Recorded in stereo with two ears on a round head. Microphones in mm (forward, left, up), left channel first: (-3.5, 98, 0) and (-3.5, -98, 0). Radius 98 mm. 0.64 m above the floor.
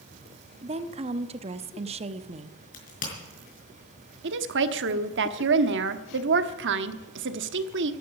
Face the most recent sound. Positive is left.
turn(degrees=-55)  # may be behind; listen again after turning